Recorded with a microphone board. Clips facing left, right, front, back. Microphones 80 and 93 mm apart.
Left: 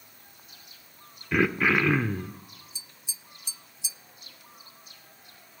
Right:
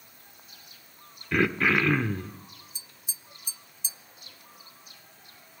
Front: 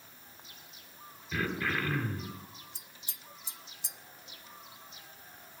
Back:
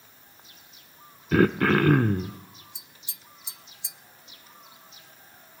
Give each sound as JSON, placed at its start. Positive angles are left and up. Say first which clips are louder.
{"t": 1.3, "sound": "throat clearing", "louder": "left 1 dB, back 13 dB", "azimuth_deg": 175, "distance_m": 0.7}
{"t": 2.8, "sound": "tapping", "louder": "left 1 dB, back 1 dB", "azimuth_deg": -45, "distance_m": 0.6}